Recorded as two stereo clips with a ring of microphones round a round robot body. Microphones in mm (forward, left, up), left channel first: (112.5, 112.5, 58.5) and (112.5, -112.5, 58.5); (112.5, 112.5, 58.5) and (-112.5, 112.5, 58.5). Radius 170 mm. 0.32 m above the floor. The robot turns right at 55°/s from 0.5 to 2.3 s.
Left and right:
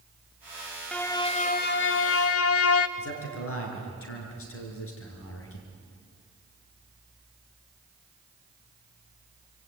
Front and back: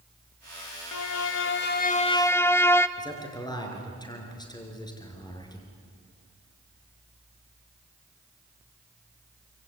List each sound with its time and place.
0.9 s a violin: 5° left, 1.0 m; by 2.9 s 80° left, 1.0 m
3.0 s a man speaking: 70° left, 6 m